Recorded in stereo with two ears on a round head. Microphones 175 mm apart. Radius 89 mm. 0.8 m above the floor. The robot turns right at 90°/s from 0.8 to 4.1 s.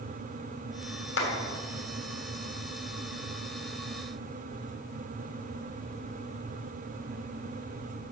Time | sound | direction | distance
1.2 | a clap | 65° left (ahead or behind) | 3.5 m